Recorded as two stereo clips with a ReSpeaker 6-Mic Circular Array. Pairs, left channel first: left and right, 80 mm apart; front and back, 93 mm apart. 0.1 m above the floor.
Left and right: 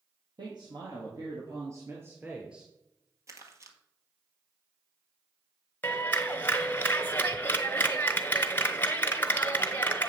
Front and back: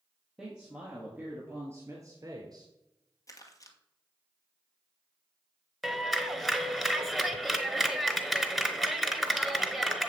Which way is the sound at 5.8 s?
85° left.